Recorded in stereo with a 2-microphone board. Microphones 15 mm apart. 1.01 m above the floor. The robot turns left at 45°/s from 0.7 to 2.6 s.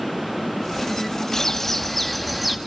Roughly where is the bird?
Ahead left.